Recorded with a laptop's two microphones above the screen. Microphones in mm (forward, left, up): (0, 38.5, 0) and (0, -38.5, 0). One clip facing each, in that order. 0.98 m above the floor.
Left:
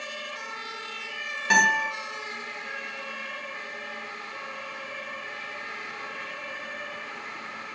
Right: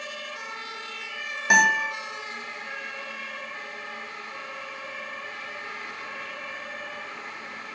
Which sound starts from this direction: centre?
A guitar, at 1.5 s.